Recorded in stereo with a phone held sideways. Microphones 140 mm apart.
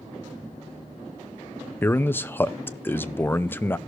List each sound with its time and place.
1.8 s a man speaking: 15° left (ahead or behind), 0.6 m